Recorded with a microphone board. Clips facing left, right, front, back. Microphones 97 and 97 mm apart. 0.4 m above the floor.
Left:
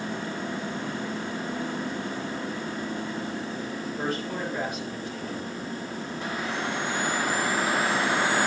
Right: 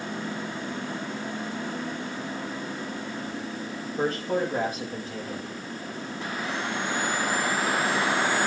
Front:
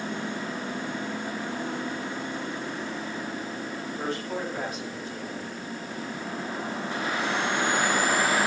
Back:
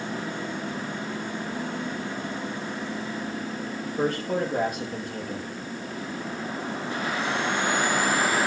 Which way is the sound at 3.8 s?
145° right.